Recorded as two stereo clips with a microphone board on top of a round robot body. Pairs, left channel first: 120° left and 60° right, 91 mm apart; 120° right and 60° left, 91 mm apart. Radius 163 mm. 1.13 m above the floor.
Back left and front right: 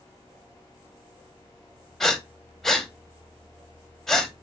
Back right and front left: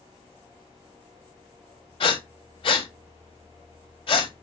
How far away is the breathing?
About 0.9 m.